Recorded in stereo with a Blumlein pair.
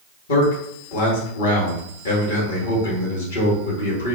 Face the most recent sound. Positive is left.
turn(degrees=60)